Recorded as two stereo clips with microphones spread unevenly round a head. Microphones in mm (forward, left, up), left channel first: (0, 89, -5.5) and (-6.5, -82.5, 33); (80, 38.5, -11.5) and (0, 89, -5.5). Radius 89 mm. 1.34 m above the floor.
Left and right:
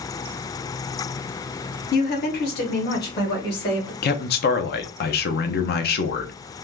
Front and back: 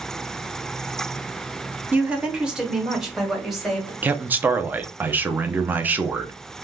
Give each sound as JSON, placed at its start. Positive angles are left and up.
{"t": 1.9, "sound": "a woman speaking", "azimuth_deg": 70, "distance_m": 0.9}
{"t": 4.0, "sound": "a man speaking", "azimuth_deg": 75, "distance_m": 0.6}